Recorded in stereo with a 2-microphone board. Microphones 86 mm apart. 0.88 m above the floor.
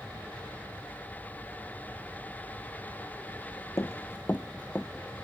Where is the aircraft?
15° right (ahead or behind); by 5.2 s centre (ahead or behind).